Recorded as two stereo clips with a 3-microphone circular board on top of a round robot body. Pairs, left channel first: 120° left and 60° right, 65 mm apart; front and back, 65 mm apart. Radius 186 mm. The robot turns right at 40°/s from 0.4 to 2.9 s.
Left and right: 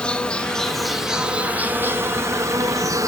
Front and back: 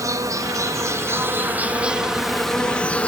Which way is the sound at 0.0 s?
170° right.